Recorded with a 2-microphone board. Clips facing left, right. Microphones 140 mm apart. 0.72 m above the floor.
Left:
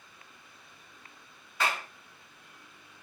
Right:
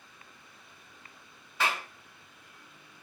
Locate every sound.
1.6 s a clap: 5° right (ahead or behind), 1.9 m